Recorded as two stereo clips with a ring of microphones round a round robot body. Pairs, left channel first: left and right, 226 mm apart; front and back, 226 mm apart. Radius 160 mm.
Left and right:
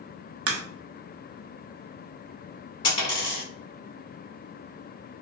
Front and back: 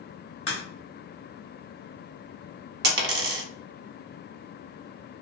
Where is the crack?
70° right, 0.6 m.